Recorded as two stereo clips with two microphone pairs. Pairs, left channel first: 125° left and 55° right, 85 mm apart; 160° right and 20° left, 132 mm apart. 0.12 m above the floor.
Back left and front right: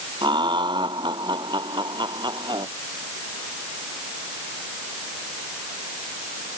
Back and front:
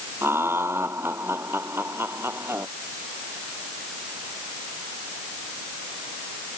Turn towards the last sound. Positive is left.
turn(degrees=-50)